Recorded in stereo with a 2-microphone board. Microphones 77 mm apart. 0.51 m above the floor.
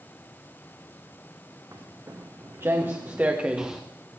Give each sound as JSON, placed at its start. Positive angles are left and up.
{"t": 1.7, "sound": "footsteps", "side_deg": -45, "distance_m": 2.5}